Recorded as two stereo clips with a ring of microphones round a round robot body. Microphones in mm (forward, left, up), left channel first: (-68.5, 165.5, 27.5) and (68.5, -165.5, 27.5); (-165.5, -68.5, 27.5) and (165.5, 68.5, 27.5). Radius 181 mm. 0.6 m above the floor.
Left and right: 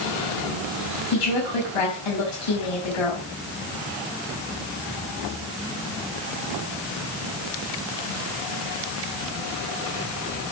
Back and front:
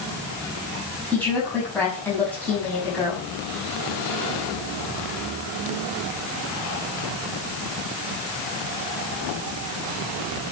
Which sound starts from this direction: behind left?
A woman speaking, at 1.1 s.